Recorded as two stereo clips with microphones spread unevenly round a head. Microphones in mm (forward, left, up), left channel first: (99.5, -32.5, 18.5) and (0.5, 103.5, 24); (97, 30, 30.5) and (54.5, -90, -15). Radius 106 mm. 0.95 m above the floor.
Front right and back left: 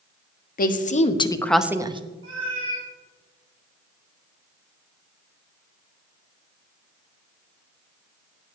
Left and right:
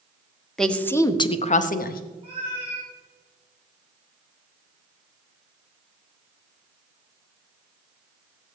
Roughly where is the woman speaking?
Ahead.